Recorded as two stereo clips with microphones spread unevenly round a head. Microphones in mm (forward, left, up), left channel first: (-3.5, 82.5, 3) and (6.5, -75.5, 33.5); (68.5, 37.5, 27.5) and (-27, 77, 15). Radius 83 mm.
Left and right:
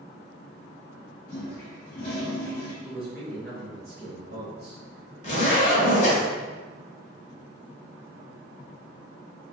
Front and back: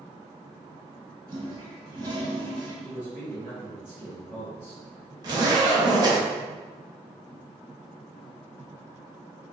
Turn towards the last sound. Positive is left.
turn(degrees=125)